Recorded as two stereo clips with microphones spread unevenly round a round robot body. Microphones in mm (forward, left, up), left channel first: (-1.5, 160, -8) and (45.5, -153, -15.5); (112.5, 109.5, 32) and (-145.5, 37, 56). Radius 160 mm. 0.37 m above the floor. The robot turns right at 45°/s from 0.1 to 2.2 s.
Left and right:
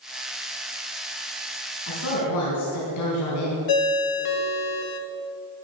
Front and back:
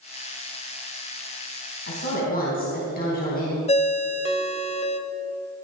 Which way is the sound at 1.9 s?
55° left.